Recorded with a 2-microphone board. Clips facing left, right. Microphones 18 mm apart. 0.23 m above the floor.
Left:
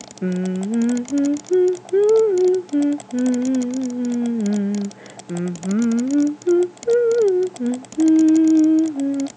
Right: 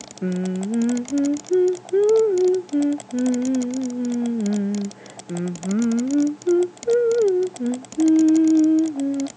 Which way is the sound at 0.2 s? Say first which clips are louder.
Left 2 dB; 20° left (ahead or behind).